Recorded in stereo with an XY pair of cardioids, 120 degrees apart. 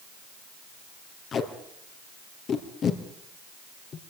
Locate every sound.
1.3 s tape being pulled: 45° left, 4 m